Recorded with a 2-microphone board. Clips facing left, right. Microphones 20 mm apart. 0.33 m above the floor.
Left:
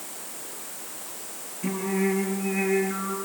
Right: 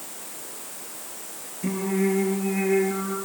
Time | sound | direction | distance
1.6 | singing | 10° left (ahead or behind) | 4.5 m